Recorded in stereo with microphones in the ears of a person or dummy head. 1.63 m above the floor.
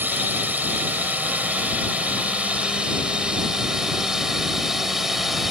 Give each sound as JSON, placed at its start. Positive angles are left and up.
{"t": 0.0, "sound": "a drone", "side_deg": -10}